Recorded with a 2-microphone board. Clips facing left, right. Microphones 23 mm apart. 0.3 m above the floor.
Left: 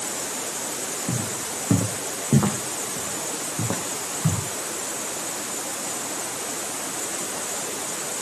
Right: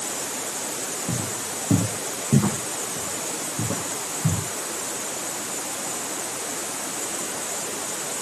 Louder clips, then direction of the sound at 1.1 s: Even; 75° left (ahead or behind).